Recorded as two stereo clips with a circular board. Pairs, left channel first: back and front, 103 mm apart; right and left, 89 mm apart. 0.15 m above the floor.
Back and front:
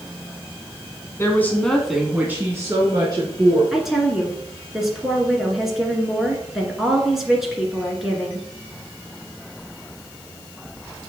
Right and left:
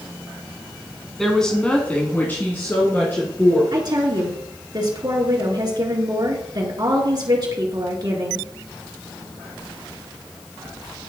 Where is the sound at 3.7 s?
85° left, 1.9 m.